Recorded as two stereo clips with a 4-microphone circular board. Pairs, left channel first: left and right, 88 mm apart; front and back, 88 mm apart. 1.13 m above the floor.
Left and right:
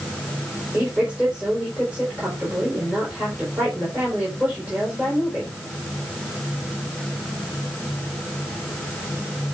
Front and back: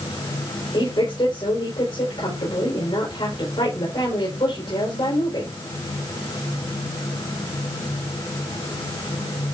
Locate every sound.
0.7 s a woman speaking: 15° right, 5 m